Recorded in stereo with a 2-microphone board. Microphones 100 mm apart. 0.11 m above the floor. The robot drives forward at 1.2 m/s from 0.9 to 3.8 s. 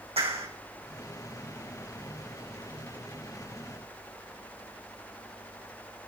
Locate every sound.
0.2 s a clap: 75° right (ahead or behind), 4.5 m